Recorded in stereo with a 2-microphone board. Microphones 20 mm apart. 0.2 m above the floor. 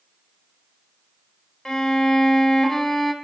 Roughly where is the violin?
Left.